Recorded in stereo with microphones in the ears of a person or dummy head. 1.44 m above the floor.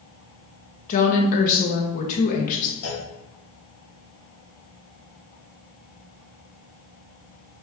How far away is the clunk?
About 1.2 m.